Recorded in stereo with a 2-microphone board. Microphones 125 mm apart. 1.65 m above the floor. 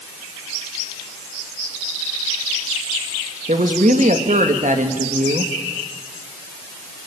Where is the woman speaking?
70° right (ahead or behind), 2.5 m.